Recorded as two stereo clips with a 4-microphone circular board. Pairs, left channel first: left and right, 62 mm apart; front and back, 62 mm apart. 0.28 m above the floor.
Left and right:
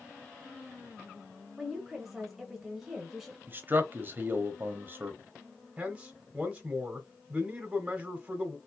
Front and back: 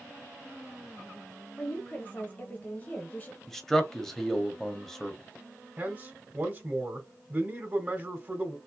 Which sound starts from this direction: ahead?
A woman speaking, at 1.6 s.